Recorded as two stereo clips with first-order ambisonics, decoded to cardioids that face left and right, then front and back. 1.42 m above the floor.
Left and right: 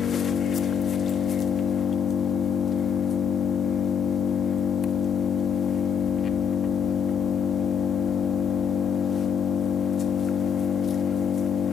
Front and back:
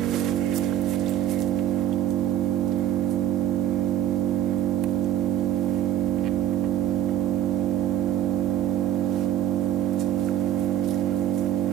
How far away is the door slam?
No door slam in this recording.